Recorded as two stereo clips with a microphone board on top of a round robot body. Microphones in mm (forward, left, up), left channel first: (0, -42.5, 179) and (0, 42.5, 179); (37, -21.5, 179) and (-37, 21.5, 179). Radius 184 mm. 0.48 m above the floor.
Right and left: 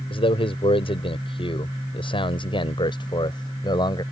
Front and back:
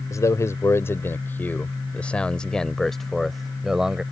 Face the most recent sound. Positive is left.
turn(degrees=-130)